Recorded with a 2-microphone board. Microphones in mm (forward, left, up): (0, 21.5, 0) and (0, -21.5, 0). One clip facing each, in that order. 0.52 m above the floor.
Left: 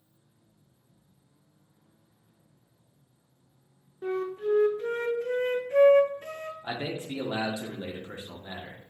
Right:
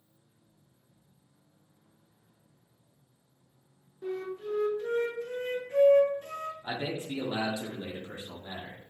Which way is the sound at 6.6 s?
25° left (ahead or behind).